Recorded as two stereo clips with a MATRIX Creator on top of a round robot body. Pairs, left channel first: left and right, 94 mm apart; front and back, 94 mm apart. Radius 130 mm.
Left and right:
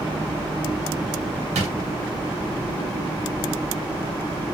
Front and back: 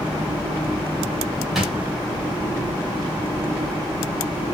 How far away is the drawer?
About 0.7 m.